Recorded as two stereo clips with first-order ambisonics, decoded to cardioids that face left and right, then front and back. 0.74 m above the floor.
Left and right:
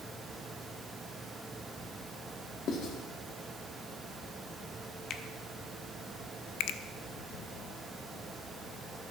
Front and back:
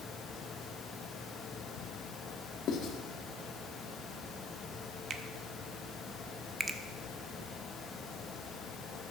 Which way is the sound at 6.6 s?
105° left.